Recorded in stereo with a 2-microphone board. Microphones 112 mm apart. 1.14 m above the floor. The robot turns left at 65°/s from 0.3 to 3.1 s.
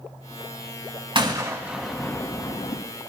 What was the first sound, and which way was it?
A gunshot, 45° right (ahead or behind).